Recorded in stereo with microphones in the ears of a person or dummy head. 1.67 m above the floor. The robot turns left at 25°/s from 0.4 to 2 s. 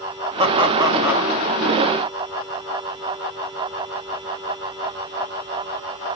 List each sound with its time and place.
0.4 s laughter: 35° right (ahead or behind), 1.0 m; by 1.3 s 10° right (ahead or behind), 1.0 m